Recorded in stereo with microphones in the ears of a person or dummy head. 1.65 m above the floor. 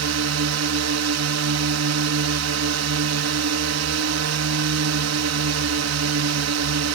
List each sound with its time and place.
0.0 s a drone: 85° right